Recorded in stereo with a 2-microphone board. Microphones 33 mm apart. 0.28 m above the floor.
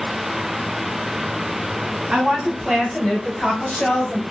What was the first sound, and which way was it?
A woman speaking, 20° right (ahead or behind).